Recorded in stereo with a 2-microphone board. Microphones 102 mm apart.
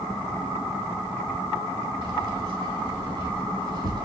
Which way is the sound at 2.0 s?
45° right (ahead or behind).